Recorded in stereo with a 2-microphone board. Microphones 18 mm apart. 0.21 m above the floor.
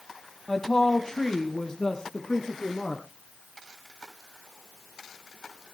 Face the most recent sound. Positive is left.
turn(degrees=40)  # may be behind; listen again after turning